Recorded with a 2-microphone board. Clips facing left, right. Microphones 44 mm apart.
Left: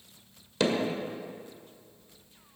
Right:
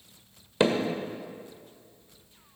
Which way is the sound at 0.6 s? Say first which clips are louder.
Right 3 dB; 25° right (ahead or behind).